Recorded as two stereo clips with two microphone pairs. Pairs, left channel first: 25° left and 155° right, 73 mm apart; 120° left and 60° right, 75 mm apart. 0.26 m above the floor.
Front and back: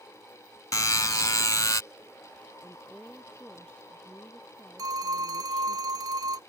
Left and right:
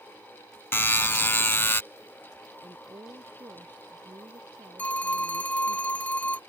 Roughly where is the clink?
I don't hear a clink.